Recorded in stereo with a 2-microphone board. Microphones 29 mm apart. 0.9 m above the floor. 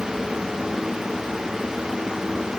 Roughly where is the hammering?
No hammering in this recording.